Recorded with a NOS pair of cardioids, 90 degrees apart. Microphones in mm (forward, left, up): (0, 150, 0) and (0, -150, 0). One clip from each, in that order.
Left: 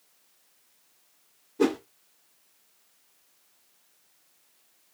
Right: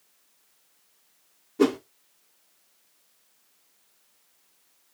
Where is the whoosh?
30° right, 2 m.